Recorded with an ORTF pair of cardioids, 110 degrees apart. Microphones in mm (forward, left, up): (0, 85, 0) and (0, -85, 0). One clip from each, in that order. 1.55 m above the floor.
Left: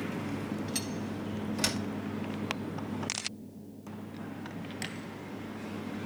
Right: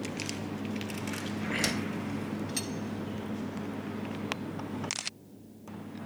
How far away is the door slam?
About 1.7 m.